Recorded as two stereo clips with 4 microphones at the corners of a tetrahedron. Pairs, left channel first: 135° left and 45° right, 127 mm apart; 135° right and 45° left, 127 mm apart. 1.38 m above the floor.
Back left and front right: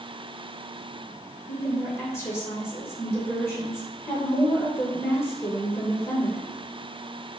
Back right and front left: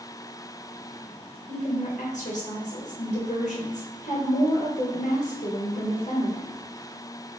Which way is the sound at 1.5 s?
155° right.